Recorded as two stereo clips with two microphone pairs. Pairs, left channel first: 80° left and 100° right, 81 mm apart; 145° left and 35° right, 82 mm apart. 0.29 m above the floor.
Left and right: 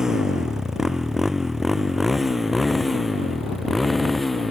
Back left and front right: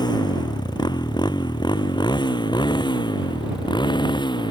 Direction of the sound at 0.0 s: 175° left.